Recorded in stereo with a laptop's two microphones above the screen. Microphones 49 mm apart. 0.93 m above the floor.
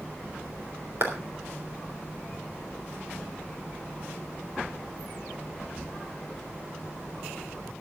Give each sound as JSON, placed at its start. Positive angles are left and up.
{"t": 1.0, "sound": "a clap", "side_deg": -55, "distance_m": 3.0}